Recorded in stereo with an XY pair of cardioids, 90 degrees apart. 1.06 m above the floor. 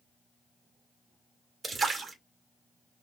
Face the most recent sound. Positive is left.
turn(degrees=-35)